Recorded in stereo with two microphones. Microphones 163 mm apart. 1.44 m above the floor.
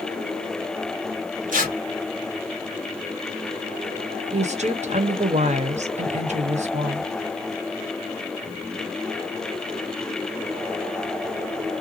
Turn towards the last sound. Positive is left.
turn(degrees=-45)  # may be behind; listen again after turning